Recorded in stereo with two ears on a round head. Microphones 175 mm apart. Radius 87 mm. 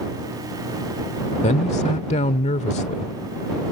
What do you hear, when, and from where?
1.4 s a man speaking: 35° left (ahead or behind)